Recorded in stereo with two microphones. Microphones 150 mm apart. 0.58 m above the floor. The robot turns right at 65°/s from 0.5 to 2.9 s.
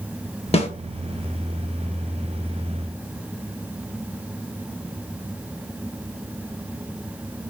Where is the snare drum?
45° left (ahead or behind), 0.7 m; by 0.7 s 40° left (ahead or behind), 0.7 m.